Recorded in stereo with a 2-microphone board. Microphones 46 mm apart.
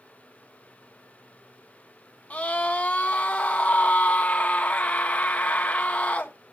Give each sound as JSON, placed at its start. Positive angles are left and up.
{"t": 2.3, "sound": "a scream", "side_deg": 30, "distance_m": 1.4}